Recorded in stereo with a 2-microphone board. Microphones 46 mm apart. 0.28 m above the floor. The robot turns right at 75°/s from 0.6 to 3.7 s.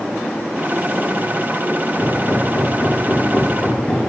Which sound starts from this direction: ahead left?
Hammering, at 2.0 s.